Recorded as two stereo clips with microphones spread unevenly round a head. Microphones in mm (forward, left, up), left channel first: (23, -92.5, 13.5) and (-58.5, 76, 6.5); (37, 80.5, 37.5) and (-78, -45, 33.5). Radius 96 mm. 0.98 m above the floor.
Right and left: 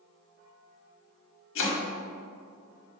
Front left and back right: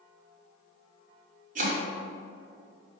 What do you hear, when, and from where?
1.6 s chopping: 85° right, 1.4 m